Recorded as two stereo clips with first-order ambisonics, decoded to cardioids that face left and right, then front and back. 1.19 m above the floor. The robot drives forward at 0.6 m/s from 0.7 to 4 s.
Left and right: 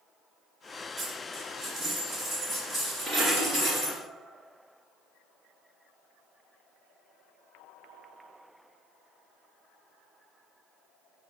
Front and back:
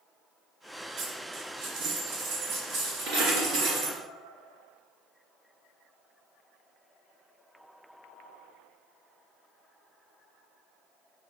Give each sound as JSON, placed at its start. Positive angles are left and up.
{"t": 1.0, "sound": "a dropped coin", "azimuth_deg": -155, "distance_m": 1.8}